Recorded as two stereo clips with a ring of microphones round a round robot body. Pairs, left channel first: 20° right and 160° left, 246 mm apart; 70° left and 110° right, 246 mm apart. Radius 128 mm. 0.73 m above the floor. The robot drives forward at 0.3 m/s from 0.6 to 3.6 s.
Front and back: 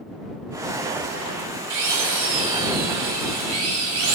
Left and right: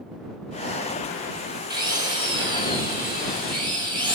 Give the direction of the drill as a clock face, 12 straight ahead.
6 o'clock.